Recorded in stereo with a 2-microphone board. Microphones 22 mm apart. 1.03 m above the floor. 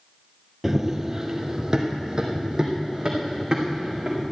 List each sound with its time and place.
0.6 s running footsteps: 15° right (ahead or behind), 1.2 m; by 4.2 s 40° right (ahead or behind), 4.5 m